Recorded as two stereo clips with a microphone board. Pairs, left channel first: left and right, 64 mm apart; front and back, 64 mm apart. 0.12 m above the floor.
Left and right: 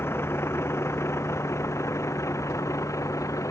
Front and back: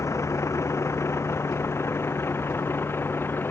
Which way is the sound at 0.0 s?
40° left.